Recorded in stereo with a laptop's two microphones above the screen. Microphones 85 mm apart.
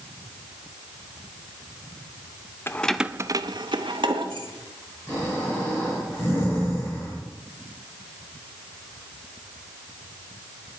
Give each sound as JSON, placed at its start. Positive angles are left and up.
{"t": 2.7, "sound": "keys jangling", "side_deg": 25, "distance_m": 0.6}
{"t": 5.1, "sound": "snoring", "side_deg": 30, "distance_m": 4.5}